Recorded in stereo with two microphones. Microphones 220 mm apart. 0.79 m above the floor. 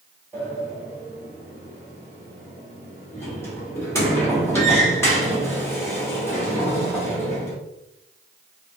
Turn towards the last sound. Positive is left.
turn(degrees=10)  # may be behind; listen again after turning